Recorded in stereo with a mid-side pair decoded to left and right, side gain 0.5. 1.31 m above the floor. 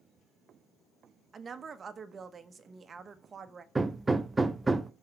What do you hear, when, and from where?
1.3 s a woman speaking: 40° right, 1.2 m
3.8 s hammering: 25° right, 0.7 m